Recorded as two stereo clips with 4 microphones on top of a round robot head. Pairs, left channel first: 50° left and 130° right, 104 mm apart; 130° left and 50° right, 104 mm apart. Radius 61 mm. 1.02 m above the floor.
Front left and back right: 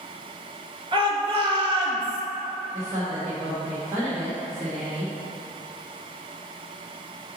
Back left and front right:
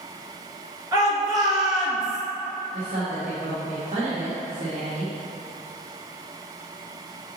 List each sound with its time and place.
0.9 s a shout: 95° right, 1.7 m
2.7 s a woman speaking: 70° right, 1.3 m